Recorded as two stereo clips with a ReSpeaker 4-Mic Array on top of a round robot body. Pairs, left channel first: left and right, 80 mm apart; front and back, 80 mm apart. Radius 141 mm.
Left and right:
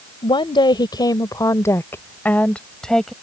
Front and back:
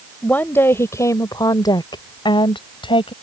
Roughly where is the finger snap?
No finger snap in this recording.